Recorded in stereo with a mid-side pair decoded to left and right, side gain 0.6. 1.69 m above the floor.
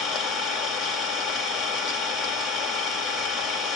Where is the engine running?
50° left, 3 m.